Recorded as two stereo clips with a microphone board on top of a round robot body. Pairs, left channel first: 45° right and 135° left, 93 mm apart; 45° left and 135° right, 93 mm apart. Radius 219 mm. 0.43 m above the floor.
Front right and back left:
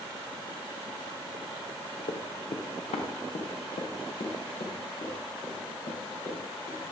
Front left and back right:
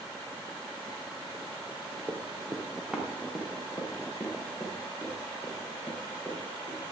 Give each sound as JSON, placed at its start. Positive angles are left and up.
{"t": 2.1, "sound": "running footsteps", "azimuth_deg": -50, "distance_m": 1.7}